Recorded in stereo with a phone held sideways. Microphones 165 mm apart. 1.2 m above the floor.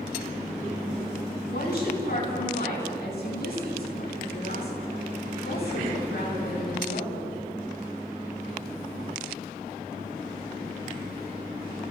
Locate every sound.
1.5 s a woman speaking: 75° left (ahead or behind), 9.5 m